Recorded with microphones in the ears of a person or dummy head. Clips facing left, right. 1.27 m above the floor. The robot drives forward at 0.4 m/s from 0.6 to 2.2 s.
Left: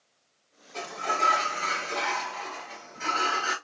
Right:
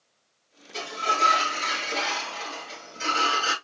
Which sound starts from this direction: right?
A sliding door, at 0.7 s.